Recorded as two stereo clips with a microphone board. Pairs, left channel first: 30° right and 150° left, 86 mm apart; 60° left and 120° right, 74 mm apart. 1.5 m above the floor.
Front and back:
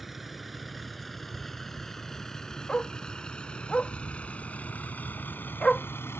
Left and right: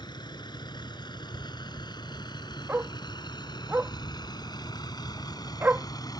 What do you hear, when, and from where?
0.0 s a vehicle: 60° left; by 6.2 s 30° left
2.7 s a dog barking: 95° right